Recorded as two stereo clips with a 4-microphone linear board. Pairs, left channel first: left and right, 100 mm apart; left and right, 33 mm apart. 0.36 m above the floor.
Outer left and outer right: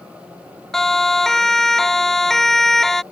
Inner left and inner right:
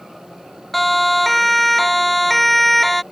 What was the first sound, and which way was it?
A siren, 5° left (ahead or behind).